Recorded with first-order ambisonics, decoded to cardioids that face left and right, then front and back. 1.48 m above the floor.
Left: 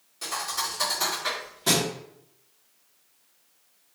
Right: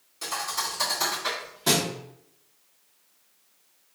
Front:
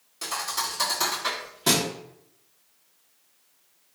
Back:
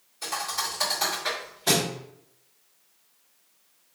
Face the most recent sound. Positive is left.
turn(degrees=-5)